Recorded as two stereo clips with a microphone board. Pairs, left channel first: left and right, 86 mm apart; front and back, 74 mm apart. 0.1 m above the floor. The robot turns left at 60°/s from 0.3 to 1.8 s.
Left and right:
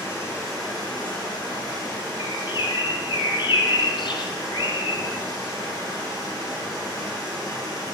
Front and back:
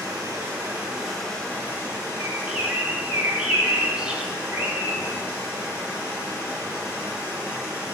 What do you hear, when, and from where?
0.0 s running water: 140° left, 2.5 m; by 8.0 s 50° left, 2.5 m
2.2 s a bird: 105° left, 0.7 m